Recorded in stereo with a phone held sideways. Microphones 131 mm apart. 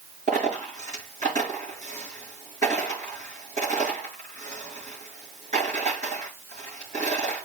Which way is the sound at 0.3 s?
60° right (ahead or behind).